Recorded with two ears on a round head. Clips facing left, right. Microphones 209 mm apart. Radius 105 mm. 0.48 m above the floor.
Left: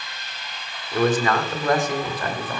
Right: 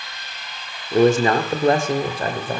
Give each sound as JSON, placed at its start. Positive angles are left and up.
{"t": 0.9, "sound": "a man speaking", "side_deg": -20, "distance_m": 1.5}